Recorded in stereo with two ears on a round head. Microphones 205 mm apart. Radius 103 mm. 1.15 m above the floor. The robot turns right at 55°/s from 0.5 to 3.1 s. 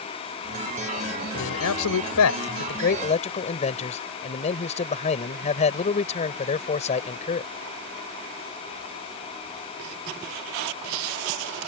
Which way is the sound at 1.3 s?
55° left.